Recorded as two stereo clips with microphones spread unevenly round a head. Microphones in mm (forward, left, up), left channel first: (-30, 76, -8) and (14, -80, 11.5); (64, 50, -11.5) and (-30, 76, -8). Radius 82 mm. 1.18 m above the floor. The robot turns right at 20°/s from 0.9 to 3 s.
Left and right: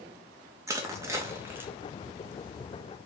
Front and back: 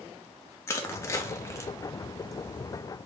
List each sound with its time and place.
0.7 s crushing: 45° right, 0.5 m; by 1.7 s 30° right, 0.5 m